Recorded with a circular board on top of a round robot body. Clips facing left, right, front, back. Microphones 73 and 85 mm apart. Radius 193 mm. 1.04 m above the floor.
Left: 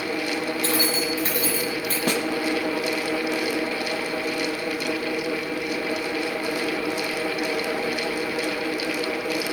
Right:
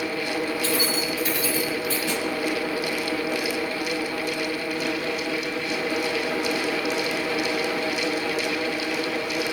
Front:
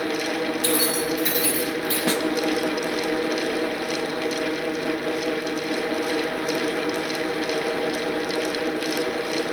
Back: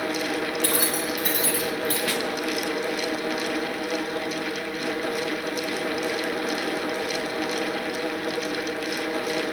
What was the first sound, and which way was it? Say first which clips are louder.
Keys jangling: left 1 dB, front 3 dB; 140° left.